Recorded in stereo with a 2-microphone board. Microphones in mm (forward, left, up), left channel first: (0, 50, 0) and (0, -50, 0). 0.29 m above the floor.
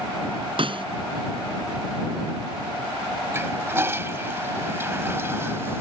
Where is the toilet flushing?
25° right (ahead or behind).